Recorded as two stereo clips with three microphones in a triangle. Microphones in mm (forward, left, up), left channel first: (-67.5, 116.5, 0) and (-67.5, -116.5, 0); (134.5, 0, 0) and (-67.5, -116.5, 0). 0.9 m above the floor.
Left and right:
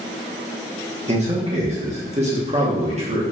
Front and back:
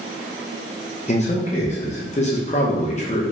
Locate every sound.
1.1 s a man speaking: 30° right, 0.8 m